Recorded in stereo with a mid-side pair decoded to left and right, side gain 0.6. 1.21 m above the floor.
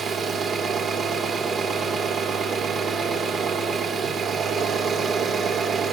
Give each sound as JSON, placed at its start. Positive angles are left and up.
{"t": 0.0, "sound": "an engine running", "azimuth_deg": -40, "distance_m": 3.0}